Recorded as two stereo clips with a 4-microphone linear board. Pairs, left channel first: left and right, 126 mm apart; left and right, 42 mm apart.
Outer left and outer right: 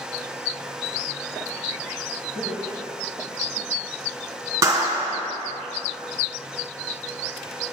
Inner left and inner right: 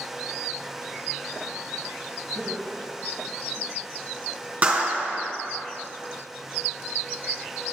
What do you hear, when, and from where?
2.4 s laughter: 70° left (ahead or behind), 3.5 m
4.6 s a clap: 25° right (ahead or behind), 2 m